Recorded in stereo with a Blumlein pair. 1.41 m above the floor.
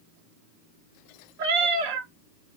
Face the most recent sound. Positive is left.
turn(degrees=-45)